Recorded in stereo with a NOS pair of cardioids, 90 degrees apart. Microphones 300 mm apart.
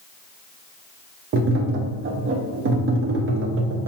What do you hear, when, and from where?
1.3 s tapping: 50° right, 0.7 m